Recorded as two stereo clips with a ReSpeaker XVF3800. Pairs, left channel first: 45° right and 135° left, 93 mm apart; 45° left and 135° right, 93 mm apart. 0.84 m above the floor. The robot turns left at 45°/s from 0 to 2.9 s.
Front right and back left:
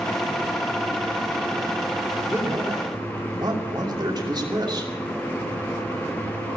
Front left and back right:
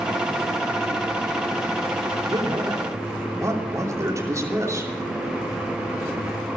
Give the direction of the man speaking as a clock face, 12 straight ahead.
5 o'clock.